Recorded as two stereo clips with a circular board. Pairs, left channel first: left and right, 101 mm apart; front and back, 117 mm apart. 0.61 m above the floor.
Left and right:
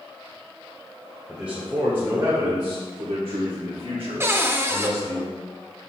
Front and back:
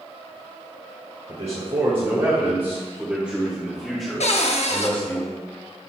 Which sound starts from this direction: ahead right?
A cupboard door, at 4.2 s.